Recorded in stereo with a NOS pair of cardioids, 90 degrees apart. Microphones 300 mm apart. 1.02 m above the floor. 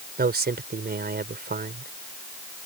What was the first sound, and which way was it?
A man speaking, 30° right.